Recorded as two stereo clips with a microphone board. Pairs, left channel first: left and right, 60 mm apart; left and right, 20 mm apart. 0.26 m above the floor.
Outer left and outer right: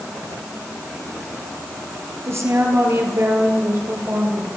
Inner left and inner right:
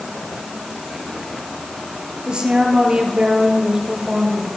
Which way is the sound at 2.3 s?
50° right (ahead or behind).